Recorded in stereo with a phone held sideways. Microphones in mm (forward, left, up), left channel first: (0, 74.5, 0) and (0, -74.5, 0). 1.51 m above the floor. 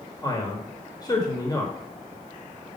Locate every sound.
0.2 s a man speaking: 25° left (ahead or behind), 1.3 m